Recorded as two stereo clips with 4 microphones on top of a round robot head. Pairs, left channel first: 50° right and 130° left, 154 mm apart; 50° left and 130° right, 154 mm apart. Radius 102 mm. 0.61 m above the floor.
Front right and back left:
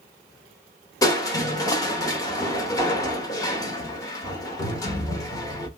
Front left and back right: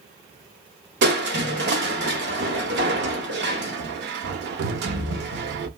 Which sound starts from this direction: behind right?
Crushing, at 1.0 s.